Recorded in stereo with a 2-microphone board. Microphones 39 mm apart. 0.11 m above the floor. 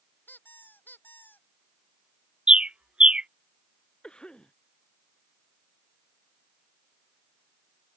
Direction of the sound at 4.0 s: 20° left (ahead or behind).